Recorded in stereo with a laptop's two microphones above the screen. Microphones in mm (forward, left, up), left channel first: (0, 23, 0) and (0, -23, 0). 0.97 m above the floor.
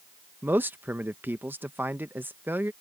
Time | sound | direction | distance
0.4 | a man speaking | 45° right (ahead or behind) | ?